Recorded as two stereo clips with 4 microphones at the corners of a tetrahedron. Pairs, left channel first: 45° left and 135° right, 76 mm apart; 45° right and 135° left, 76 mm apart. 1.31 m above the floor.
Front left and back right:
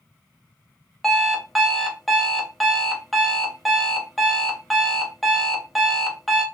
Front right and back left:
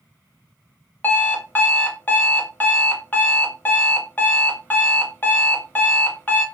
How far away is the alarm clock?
About 0.6 m.